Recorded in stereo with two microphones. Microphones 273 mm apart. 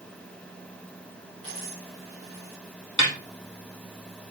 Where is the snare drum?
80° left, 3.5 m.